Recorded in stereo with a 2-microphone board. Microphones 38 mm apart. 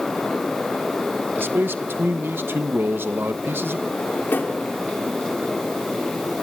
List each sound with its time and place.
1.4 s a man speaking: 80° right, 0.9 m
3.9 s a drawer: 75° left (ahead or behind), 2 m